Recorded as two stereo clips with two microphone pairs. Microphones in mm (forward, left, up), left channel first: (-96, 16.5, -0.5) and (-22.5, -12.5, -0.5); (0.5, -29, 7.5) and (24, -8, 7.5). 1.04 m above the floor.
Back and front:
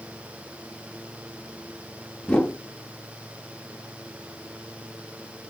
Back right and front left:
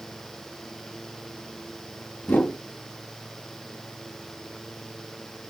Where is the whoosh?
125° right, 0.9 m.